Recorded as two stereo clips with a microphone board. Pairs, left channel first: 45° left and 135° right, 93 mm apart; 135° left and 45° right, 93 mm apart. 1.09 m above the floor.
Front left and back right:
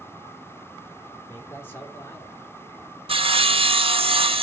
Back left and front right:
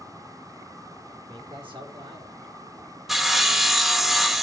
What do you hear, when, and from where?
1.3 s a man speaking: 20° right, 3.5 m
3.1 s sawing: 130° right, 0.9 m